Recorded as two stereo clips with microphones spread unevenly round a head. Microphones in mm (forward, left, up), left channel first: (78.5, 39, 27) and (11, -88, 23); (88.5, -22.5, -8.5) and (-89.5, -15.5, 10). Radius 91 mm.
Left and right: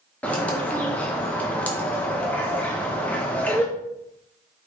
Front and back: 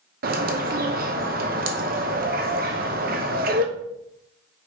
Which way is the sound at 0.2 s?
145° left.